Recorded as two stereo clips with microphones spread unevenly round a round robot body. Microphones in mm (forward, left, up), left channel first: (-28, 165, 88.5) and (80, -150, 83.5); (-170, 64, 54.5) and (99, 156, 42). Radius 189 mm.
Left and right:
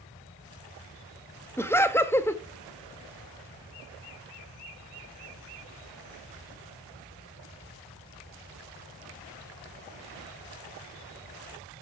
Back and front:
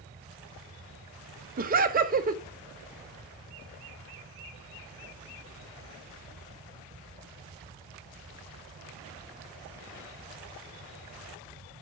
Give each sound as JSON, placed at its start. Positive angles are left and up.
{"t": 1.6, "sound": "laughter", "azimuth_deg": 30, "distance_m": 0.7}